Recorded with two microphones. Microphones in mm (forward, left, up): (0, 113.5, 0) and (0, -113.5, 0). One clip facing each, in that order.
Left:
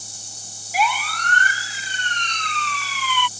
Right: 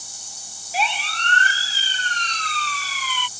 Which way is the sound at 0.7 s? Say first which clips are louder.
Left 3 dB; 30° right (ahead or behind).